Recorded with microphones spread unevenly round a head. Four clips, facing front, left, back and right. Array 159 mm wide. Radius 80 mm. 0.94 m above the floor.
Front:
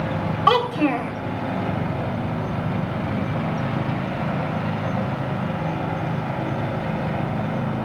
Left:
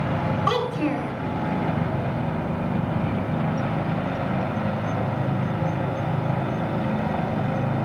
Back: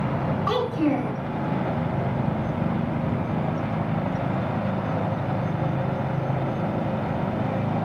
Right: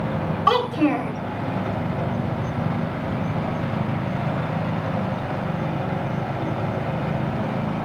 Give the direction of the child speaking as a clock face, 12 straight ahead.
1 o'clock.